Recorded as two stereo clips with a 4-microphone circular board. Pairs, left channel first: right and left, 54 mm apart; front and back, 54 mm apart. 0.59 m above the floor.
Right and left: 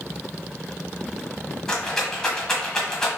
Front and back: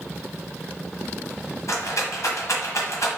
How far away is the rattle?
About 1.4 m.